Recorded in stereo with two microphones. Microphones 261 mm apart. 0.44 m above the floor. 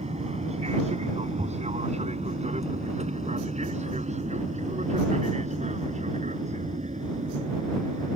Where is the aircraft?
25° right (ahead or behind); by 8.2 s 30° right (ahead or behind).